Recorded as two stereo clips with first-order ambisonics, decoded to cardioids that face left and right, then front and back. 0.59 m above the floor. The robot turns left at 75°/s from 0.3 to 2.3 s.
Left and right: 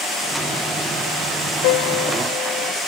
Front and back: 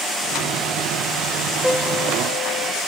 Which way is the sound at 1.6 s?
90° left.